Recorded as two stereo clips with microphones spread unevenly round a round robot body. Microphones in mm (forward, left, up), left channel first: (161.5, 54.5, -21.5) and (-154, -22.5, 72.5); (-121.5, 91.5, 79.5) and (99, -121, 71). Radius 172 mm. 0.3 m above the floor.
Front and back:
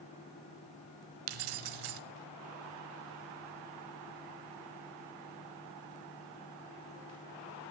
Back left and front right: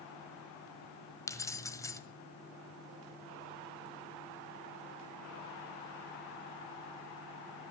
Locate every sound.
1.3 s keys jangling: 145° right, 1.2 m